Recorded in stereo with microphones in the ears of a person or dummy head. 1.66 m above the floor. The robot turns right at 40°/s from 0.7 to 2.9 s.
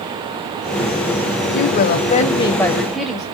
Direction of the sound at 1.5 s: 125° left.